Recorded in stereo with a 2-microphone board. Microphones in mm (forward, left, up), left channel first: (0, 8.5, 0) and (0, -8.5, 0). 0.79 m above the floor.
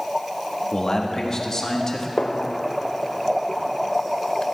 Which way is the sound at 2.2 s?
60° left (ahead or behind).